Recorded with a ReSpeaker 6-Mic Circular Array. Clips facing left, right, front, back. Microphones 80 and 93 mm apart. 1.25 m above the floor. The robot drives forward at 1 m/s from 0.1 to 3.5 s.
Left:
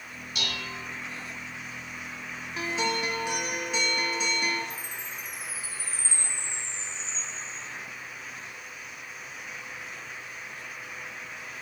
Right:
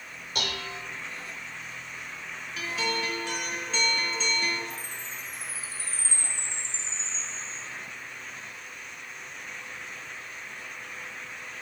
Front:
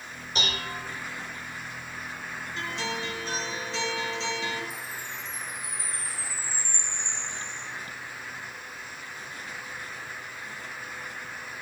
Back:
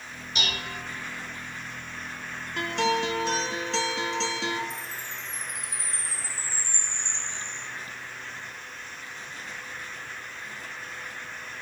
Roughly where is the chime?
Behind.